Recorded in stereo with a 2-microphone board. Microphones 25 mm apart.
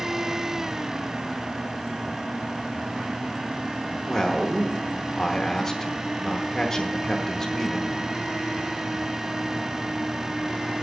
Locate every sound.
4.1 s a man speaking: 15° left (ahead or behind), 0.9 m